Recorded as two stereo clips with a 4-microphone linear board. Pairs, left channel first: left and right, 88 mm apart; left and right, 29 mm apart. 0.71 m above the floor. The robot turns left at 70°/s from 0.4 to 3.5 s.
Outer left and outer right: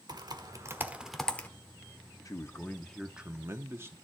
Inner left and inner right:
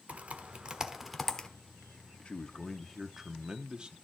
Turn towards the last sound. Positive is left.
turn(degrees=-35)